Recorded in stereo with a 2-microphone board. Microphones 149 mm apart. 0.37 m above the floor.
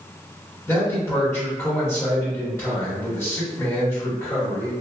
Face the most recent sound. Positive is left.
turn(degrees=20)  # may be behind; listen again after turning